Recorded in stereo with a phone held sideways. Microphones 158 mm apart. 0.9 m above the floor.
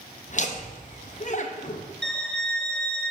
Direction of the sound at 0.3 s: 50° left (ahead or behind).